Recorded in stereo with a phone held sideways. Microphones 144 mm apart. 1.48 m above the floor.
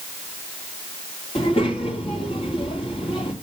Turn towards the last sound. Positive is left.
turn(degrees=40)  # may be behind; listen again after turning